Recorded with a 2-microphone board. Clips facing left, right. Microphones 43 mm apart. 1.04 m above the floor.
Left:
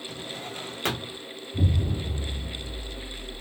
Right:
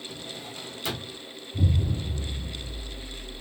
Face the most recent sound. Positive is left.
turn(degrees=35)  # may be behind; listen again after turning